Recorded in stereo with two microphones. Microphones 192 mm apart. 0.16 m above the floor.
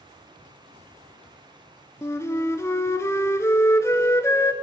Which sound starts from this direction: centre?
A flute, at 2.0 s.